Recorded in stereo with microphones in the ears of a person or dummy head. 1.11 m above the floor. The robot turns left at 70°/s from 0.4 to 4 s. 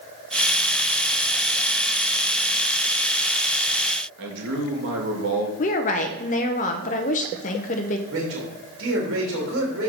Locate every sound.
4.2 s a man speaking: 65° right (ahead or behind), 2.0 m
5.6 s a woman speaking: 40° left (ahead or behind), 0.7 m
8.1 s a man speaking: 70° right (ahead or behind), 2.5 m